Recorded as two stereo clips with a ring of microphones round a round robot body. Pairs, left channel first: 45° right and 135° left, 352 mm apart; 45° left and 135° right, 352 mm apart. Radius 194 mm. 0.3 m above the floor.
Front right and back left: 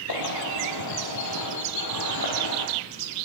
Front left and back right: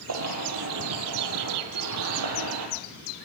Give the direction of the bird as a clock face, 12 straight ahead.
3 o'clock.